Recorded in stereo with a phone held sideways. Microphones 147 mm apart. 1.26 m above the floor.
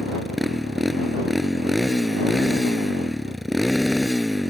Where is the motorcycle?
Centre (ahead or behind).